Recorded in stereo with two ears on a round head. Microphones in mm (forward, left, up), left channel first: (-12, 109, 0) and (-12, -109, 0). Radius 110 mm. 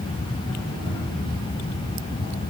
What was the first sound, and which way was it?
Only background noise.